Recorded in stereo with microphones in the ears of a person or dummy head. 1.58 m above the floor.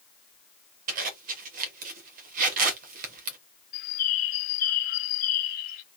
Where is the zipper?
50° right (ahead or behind), 1.1 m.